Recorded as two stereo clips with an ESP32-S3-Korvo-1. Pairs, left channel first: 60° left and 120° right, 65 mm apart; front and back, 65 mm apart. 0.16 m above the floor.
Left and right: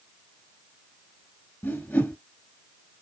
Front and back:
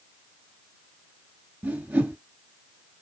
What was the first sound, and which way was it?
A whoosh, 120° left.